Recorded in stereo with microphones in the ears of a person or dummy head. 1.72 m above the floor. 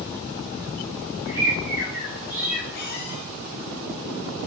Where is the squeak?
50° left (ahead or behind), 1.3 m.